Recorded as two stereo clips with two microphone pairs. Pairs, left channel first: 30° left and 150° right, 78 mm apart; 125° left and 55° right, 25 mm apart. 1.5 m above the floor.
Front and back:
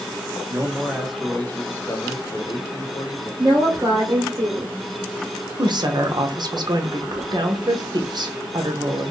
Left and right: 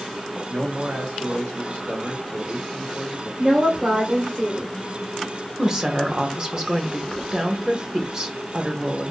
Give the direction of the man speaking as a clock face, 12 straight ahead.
3 o'clock.